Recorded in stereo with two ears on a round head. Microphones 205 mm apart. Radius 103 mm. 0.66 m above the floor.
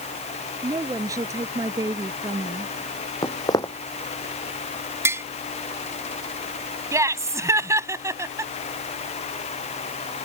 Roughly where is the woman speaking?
Centre.